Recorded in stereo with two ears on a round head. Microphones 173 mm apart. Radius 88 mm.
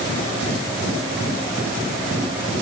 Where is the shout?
No shout in this recording.